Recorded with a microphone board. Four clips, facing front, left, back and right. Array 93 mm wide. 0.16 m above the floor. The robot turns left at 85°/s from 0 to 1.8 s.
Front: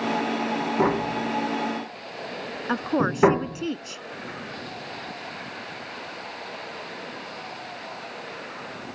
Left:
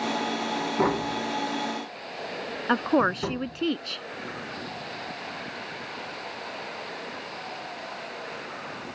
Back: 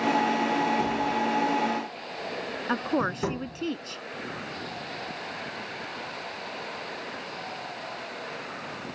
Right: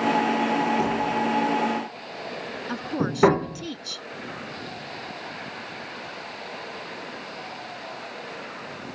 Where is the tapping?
40° left; by 3.7 s 45° right.